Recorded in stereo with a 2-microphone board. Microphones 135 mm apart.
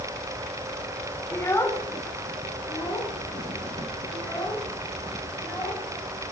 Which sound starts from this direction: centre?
A child speaking, at 1.3 s.